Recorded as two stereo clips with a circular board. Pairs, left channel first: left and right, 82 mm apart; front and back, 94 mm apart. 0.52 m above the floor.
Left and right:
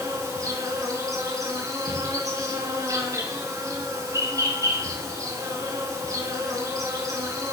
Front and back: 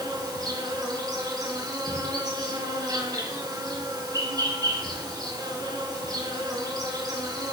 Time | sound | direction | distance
0.0 | an insect | 135° right | 4.5 m